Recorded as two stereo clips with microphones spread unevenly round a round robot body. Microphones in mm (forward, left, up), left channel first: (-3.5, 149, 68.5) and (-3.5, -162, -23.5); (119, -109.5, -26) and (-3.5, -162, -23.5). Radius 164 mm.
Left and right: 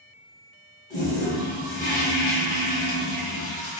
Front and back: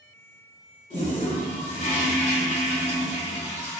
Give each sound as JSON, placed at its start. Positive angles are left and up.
{"t": 0.9, "sound": "a toilet flushing", "azimuth_deg": 25, "distance_m": 1.9}